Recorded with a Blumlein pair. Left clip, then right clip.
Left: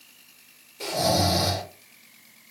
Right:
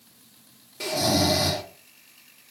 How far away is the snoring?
About 2 m.